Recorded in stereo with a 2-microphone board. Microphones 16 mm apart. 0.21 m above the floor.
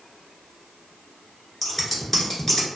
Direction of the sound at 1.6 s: 20° left (ahead or behind).